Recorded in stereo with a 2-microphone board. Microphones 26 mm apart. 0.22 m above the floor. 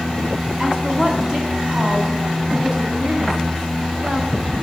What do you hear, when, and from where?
0.6 s a woman speaking: 30° right (ahead or behind), 1.8 m